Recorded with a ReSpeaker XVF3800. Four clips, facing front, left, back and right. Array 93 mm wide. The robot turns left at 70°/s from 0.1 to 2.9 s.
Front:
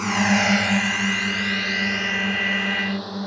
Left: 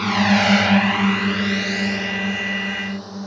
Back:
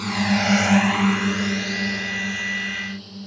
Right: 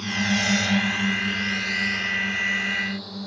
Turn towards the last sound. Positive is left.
turn(degrees=20)